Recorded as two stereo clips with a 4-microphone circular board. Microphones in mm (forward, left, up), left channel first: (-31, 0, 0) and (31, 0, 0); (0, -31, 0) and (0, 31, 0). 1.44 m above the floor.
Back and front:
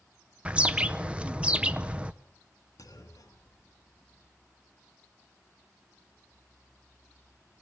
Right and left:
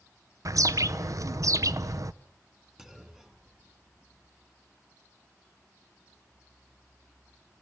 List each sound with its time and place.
0.5 s a bird: 70° left, 0.6 m
2.8 s a clunk: 170° left, 1.9 m